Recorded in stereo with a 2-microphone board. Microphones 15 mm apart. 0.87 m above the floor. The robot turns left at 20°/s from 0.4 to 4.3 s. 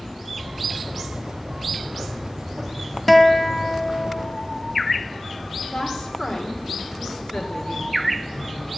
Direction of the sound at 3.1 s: 5° left (ahead or behind).